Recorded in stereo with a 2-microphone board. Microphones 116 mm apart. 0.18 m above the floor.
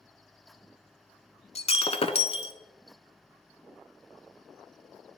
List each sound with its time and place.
1.6 s breaking glass: 60° left (ahead or behind), 0.6 m